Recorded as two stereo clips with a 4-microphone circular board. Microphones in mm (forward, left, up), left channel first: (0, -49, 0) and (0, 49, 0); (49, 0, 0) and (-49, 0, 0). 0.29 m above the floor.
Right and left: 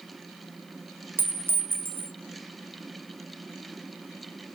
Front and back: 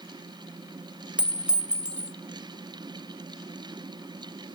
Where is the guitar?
I don't hear a guitar.